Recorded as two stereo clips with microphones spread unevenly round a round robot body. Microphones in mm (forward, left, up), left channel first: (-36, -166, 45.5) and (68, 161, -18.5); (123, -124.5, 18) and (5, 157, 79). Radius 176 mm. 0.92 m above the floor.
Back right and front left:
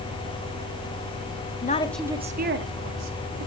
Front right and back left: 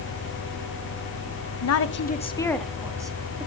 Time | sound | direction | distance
1.6 | a woman speaking | 40° right | 1.1 m